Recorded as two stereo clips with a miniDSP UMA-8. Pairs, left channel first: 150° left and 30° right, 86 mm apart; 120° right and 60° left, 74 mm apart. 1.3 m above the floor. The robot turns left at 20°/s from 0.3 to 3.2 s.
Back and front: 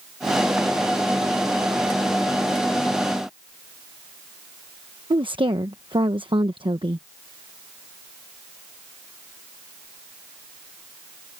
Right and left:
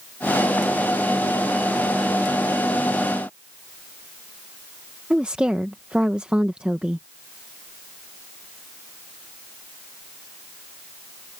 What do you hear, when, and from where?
5.1 s a woman speaking: 15° right